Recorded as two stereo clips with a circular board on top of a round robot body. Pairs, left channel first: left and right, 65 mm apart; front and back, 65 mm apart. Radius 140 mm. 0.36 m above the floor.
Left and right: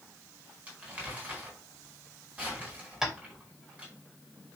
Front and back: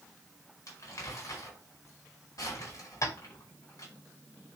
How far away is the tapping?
About 3 m.